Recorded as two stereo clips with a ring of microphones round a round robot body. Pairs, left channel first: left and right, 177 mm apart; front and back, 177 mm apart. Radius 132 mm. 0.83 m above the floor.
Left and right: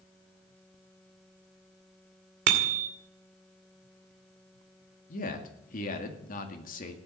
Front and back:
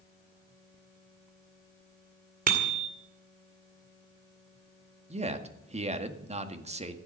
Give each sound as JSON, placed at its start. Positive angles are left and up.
{"t": 2.5, "sound": "a bicycle bell", "azimuth_deg": -125, "distance_m": 2.0}
{"t": 5.1, "sound": "a man speaking", "azimuth_deg": 130, "distance_m": 2.0}